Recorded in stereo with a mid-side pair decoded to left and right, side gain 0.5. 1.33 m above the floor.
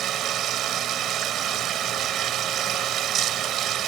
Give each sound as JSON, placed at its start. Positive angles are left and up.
{"t": 0.0, "sound": "running water", "azimuth_deg": -65}